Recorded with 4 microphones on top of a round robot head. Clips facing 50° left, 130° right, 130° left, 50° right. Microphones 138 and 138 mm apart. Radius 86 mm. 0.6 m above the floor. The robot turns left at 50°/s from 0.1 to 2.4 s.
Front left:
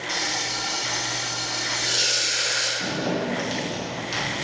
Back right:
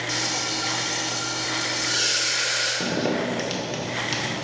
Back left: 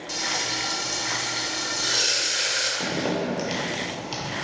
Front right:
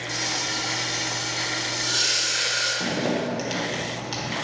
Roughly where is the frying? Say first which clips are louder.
Front left 1 dB, back left 1 dB; behind right.